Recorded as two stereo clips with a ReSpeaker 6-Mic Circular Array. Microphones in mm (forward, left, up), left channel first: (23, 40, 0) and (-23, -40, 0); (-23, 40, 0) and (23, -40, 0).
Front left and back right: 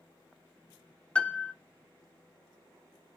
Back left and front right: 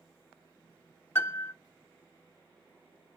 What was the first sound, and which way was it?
A piano, 120° left.